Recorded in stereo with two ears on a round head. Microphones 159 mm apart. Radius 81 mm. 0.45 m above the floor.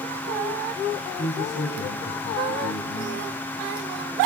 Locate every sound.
1.2 s a man speaking: 70° left (ahead or behind), 5 m; by 3.3 s 65° left (ahead or behind), 4 m